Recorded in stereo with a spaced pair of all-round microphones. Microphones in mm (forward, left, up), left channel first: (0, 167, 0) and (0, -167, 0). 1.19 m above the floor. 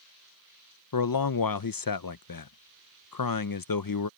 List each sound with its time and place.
0.9 s a man speaking: 80° left